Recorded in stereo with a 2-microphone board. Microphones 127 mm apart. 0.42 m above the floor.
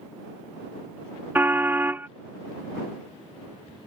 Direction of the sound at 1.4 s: 15° right (ahead or behind).